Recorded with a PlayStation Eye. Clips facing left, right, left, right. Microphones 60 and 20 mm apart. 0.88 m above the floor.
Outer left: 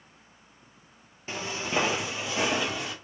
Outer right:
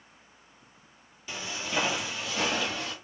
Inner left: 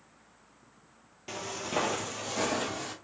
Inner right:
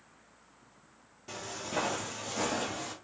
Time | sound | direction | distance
1.3 | footsteps | 35° left (ahead or behind) | 1.0 m